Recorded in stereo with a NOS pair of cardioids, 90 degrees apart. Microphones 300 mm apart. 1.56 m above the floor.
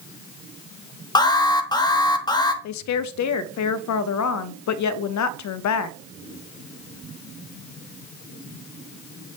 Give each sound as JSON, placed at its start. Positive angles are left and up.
{"t": 1.1, "sound": "an alarm", "azimuth_deg": 15, "distance_m": 1.0}
{"t": 2.6, "sound": "a woman speaking", "azimuth_deg": 70, "distance_m": 0.5}